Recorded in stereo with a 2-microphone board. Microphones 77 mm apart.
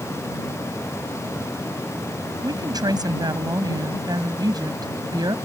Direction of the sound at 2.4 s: 60° right (ahead or behind).